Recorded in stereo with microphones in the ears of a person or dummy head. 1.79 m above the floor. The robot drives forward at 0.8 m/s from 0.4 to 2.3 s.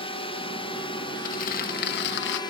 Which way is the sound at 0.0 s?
30° left (ahead or behind).